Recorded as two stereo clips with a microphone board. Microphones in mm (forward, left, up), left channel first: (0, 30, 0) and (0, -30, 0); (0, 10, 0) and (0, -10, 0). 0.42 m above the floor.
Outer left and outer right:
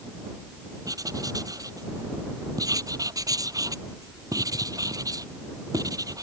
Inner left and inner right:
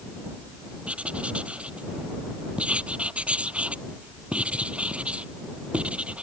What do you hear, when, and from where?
0.8 s writing: 85° right